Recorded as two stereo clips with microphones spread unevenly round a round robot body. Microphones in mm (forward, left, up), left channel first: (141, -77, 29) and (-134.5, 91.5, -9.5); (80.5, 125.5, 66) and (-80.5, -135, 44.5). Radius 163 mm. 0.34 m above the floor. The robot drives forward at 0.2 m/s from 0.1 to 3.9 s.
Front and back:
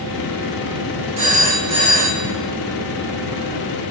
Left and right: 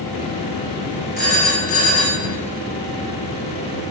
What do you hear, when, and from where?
1.2 s a phone ringing: 120° left, 2.5 m; by 2.3 s 125° left, 2.5 m